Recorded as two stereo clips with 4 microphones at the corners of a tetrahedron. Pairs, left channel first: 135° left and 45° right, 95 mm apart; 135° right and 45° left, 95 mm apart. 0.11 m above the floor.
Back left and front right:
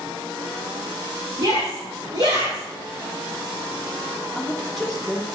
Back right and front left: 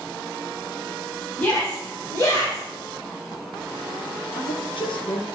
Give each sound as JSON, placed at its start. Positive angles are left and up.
{"t": 1.4, "sound": "a shout", "azimuth_deg": -60, "distance_m": 5.5}
{"t": 4.3, "sound": "a woman speaking", "azimuth_deg": -135, "distance_m": 3.5}